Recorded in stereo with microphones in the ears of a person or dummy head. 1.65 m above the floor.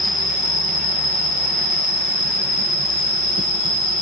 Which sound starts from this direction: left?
An insect, at 0.0 s.